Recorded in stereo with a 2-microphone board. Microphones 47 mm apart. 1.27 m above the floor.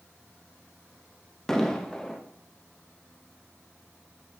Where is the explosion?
10° left (ahead or behind), 1.0 m.